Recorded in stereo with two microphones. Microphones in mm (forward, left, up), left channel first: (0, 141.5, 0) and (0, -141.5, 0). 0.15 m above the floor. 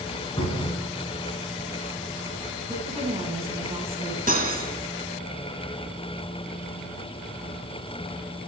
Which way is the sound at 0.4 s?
20° left (ahead or behind).